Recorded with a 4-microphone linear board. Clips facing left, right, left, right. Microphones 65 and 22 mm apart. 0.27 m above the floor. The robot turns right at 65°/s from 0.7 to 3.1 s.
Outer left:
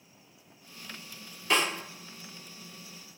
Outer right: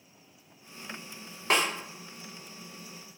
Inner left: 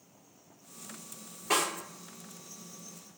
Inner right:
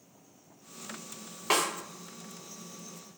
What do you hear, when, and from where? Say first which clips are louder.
1.5 s a snare drum: outer right 1 dB, inner right 1 dB; 60° right (ahead or behind), 1.2 m; by 1.7 s 65° right (ahead or behind), 1.2 m